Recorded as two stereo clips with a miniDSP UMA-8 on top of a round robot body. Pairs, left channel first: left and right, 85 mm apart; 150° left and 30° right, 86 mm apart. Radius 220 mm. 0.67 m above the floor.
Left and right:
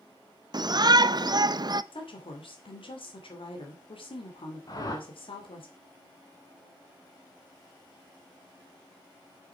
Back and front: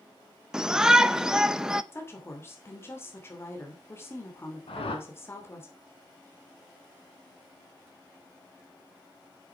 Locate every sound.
0.5 s a shout: 110° right, 0.8 m
1.9 s a woman speaking: 90° left, 2.5 m
4.7 s a whoosh: 140° left, 1.3 m